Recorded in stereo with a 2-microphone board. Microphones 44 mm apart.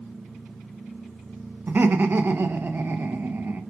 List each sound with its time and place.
1.7 s laughter: 55° right (ahead or behind), 1.0 m